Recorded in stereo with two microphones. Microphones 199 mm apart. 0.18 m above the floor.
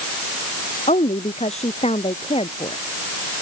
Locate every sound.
0.9 s a woman speaking: 35° left (ahead or behind); by 2.8 s 30° left (ahead or behind)